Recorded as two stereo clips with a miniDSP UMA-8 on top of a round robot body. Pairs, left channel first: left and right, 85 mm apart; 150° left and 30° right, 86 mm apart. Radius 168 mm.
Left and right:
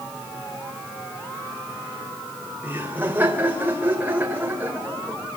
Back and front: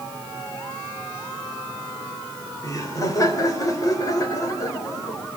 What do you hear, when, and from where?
2.6 s laughter: 160° right, 3.5 m